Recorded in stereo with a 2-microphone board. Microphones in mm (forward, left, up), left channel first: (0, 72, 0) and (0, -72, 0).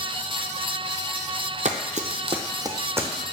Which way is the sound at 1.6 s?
55° right (ahead or behind).